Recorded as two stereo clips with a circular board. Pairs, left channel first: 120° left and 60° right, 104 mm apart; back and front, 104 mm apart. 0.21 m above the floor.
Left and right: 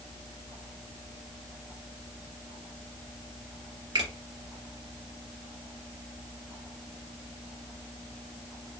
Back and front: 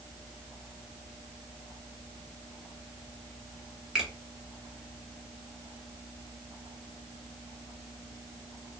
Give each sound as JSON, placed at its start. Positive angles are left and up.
{"t": 4.0, "sound": "a finger snap", "azimuth_deg": -85, "distance_m": 1.5}